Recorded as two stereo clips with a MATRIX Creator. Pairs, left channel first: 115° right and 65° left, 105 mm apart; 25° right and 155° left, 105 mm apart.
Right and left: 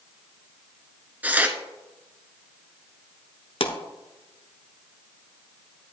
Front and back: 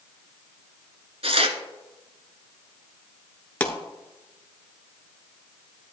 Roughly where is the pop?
Right.